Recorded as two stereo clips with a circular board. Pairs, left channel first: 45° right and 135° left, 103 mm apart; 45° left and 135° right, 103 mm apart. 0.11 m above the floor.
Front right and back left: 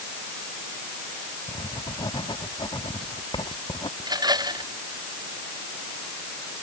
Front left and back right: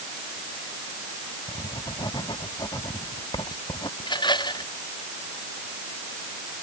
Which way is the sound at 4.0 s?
85° left.